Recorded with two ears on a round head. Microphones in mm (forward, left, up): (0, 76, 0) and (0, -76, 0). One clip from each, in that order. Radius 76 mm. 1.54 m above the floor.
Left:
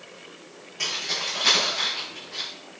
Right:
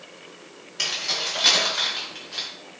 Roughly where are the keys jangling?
Right.